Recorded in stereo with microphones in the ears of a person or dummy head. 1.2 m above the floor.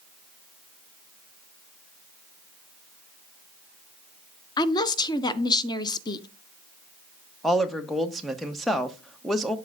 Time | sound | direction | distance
4.6 | a woman speaking | 25° left (ahead or behind) | 0.5 m
7.4 | a woman speaking | centre (ahead or behind) | 0.6 m